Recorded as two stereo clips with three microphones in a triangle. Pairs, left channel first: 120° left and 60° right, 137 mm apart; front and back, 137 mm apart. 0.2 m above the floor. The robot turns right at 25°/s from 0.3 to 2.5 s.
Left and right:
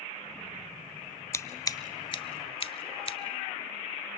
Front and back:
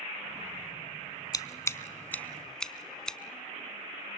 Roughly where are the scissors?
Ahead left.